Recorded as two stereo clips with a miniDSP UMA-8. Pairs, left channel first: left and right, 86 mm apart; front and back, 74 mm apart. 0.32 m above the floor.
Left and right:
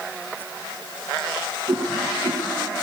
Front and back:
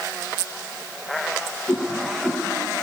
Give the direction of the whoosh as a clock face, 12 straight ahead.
3 o'clock.